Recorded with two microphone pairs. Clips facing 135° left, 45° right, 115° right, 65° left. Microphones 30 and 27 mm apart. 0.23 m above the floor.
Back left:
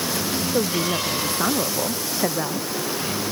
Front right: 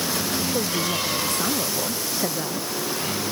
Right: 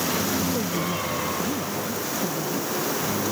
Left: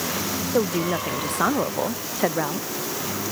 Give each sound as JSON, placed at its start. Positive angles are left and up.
{"t": 0.5, "sound": "a woman speaking", "azimuth_deg": 70}